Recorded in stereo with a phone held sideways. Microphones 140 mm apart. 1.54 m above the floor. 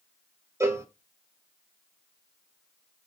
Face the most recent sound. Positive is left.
turn(degrees=-20)  # may be behind; listen again after turning